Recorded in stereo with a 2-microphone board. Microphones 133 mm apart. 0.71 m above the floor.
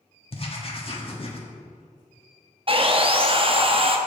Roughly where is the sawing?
Right.